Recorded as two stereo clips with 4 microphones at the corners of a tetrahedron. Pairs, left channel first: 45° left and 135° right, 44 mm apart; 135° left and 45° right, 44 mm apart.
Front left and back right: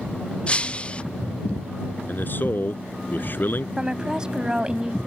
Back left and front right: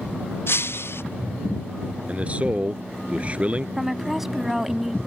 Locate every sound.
0.5 s breaking glass: 110° left
2.1 s a man speaking: 10° left
3.8 s a woman speaking: 110° right